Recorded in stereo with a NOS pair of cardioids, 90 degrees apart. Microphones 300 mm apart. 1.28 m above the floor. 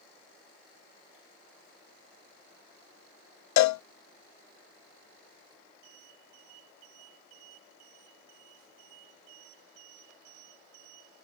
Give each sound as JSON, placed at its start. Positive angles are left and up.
{"t": 3.6, "sound": "a cowbell", "azimuth_deg": 65}